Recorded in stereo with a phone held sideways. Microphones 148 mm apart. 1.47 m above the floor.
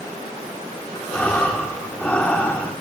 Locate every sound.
1.1 s breathing: 10° left (ahead or behind), 1.1 m